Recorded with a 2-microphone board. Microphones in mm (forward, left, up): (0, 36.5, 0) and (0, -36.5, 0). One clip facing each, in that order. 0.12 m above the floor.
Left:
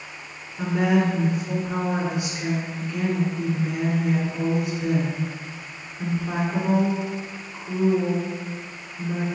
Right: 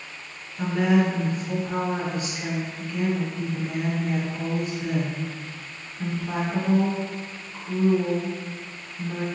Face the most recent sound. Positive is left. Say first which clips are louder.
# even
turn(degrees=15)  # may be behind; listen again after turning